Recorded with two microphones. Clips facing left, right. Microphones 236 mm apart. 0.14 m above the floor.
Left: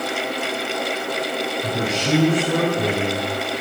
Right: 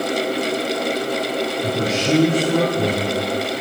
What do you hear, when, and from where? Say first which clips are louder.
1.6 s a man speaking: right 3 dB; centre (ahead or behind), 1.8 m